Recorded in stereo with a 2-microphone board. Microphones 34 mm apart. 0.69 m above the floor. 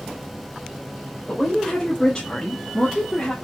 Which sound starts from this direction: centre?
A woman speaking, at 1.3 s.